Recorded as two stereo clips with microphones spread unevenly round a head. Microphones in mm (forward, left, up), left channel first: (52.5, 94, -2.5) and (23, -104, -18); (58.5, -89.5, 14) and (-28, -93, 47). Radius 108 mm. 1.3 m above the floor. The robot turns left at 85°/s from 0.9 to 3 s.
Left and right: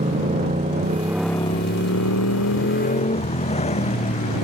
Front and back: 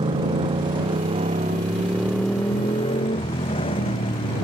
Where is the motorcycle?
160° right; by 4.5 s 25° left.